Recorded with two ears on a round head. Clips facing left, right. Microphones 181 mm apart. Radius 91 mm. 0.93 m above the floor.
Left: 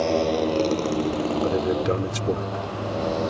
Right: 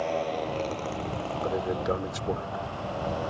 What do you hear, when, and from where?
0.0 s a motorcycle: 55° left (ahead or behind); by 3.3 s 50° left (ahead or behind)
1.4 s a man speaking: 35° left (ahead or behind)